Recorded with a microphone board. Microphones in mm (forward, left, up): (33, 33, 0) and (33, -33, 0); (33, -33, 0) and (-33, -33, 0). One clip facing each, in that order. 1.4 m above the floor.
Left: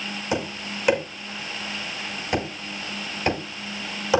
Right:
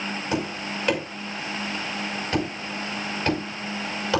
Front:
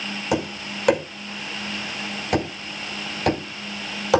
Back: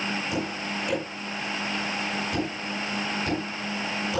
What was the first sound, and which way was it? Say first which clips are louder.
Tapping: left 1 dB, front 4 dB; 15° left.